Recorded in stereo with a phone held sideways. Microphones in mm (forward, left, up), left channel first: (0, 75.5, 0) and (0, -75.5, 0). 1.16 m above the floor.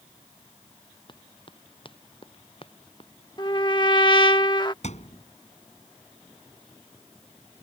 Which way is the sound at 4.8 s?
55° left (ahead or behind).